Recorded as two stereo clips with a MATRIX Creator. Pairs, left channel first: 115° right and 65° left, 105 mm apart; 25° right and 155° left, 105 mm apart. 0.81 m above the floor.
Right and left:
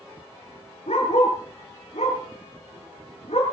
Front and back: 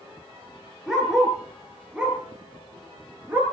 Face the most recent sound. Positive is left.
turn(degrees=-130)